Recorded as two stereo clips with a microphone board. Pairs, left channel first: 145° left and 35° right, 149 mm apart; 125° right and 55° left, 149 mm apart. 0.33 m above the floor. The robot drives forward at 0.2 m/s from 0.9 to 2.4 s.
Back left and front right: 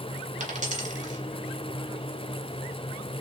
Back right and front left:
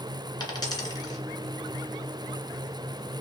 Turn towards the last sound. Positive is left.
turn(degrees=-75)